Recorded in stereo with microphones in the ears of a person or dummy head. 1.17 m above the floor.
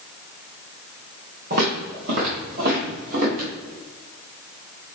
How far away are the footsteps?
About 3 m.